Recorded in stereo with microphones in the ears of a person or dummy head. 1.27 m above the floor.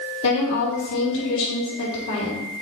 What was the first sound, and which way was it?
A woman speaking, 75° left (ahead or behind).